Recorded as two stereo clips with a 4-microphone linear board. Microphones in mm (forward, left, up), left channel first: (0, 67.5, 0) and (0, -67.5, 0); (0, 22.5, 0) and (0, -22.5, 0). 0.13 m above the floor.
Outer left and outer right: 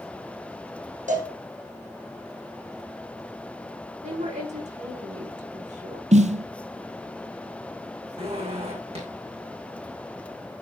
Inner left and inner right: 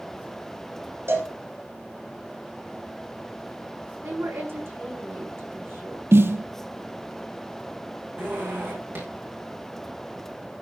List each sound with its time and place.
1.1 s a cowbell: 65° right (ahead or behind), 6.5 m
4.0 s a woman speaking: 55° right (ahead or behind), 7.5 m
6.1 s a snare drum: 60° right (ahead or behind), 0.7 m
8.2 s a zipper: 45° right (ahead or behind), 6 m